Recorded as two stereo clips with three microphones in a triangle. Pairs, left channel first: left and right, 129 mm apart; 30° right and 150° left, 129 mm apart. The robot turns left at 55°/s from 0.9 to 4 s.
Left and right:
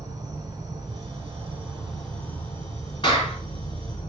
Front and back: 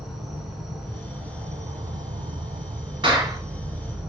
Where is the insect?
125° right, 0.9 m; by 4.1 s 65° left, 0.9 m.